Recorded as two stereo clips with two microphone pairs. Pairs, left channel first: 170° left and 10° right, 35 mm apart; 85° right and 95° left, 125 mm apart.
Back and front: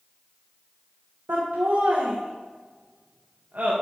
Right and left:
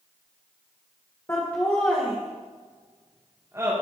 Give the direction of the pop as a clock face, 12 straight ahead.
No pop in this recording.